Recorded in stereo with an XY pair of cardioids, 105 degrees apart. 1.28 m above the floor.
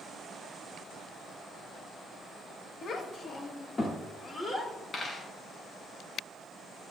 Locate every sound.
2.8 s a child speaking: 55° left, 1.5 m; by 4.7 s 25° left, 4 m
4.9 s a dropped coin: 30° left, 3.5 m